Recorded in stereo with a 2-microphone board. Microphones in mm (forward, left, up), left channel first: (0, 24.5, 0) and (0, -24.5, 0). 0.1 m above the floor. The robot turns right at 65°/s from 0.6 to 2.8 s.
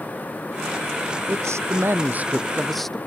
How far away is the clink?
No clink in this recording.